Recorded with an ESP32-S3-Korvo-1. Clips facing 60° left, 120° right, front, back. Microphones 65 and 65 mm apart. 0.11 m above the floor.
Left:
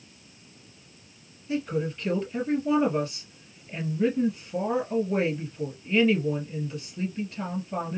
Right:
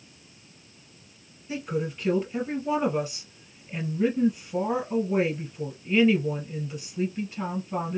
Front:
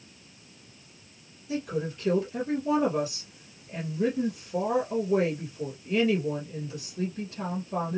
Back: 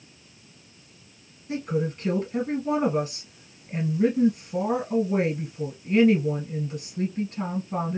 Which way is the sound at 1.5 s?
170° left.